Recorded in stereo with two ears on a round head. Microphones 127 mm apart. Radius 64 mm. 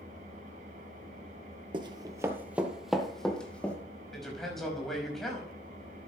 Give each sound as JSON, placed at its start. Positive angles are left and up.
{"t": 0.0, "sound": "an engine running", "side_deg": -65, "distance_m": 6.5}
{"t": 1.7, "sound": "running footsteps", "side_deg": -35, "distance_m": 1.1}
{"t": 4.1, "sound": "a woman speaking", "side_deg": 0, "distance_m": 5.5}